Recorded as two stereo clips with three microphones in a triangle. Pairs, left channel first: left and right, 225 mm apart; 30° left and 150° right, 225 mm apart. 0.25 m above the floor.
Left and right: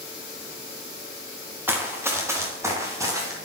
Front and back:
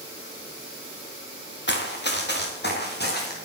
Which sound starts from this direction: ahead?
Running footsteps, at 1.7 s.